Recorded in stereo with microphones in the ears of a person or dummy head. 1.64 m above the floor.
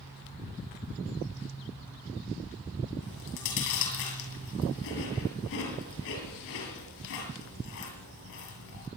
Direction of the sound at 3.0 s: 70° left (ahead or behind).